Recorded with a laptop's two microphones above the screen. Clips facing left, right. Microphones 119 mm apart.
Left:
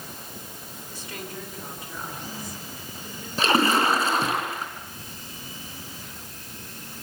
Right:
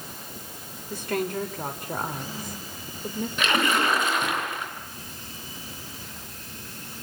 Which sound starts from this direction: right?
A woman speaking, at 0.9 s.